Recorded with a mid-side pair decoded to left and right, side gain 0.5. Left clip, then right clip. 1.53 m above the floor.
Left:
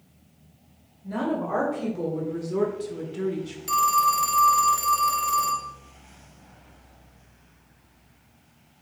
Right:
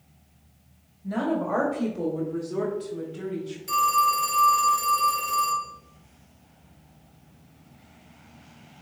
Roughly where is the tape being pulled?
No tape being pulled in this recording.